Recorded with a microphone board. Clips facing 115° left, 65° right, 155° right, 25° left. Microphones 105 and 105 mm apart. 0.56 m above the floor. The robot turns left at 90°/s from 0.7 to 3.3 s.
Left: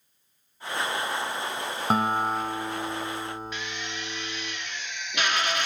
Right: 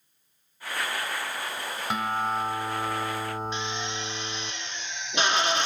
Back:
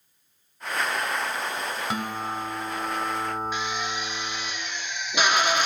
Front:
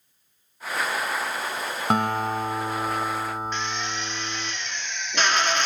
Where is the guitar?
65° left, 1.3 m; by 4.5 s 65° right, 1.3 m.